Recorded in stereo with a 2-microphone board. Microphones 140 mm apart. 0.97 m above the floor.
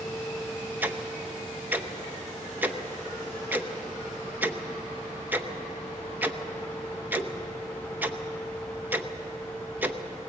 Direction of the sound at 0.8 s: 15° right (ahead or behind).